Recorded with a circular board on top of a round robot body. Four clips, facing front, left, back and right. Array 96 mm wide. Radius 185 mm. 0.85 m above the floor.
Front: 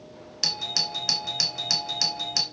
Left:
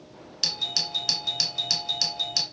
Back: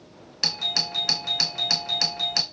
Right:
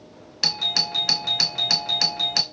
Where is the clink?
I don't hear a clink.